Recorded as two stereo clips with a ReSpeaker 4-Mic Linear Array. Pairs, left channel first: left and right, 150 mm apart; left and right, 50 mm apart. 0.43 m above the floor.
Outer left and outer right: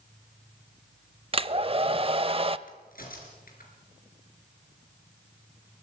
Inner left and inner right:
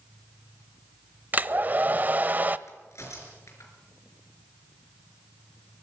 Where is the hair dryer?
35° right (ahead or behind), 0.6 m.